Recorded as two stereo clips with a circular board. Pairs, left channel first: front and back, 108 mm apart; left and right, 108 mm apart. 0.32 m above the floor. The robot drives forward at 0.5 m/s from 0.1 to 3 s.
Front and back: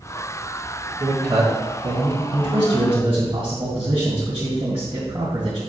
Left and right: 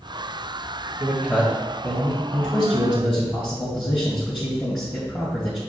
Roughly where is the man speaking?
Behind right.